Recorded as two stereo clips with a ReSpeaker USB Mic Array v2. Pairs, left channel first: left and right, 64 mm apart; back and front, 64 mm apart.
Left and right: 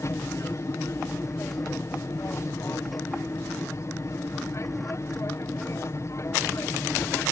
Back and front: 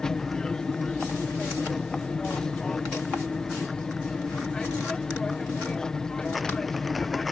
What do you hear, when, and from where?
0.0 s an aircraft: 105° left